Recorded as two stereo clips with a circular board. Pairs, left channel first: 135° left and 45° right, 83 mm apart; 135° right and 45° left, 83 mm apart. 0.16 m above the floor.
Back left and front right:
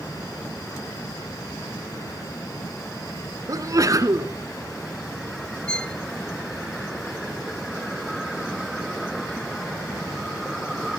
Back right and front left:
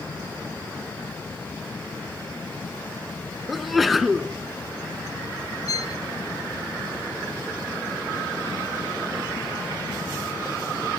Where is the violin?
150° right, 0.7 m.